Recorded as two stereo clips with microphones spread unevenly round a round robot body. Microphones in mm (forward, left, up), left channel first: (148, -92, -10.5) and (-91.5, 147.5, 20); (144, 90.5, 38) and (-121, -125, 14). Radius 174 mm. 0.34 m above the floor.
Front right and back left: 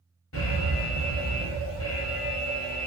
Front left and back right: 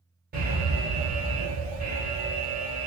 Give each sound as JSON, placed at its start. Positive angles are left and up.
{"t": 0.3, "sound": "an alarm", "azimuth_deg": -85, "distance_m": 1.6}